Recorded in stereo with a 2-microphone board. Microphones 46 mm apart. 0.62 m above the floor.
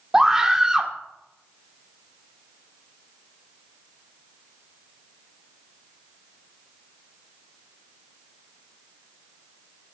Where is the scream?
15° right (ahead or behind), 2 m.